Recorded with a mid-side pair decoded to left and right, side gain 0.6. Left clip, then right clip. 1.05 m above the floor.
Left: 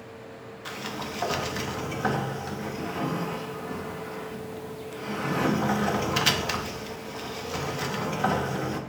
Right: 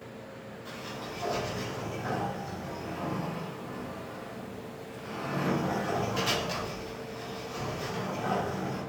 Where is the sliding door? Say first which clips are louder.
Left 6 dB; 65° left, 0.6 m.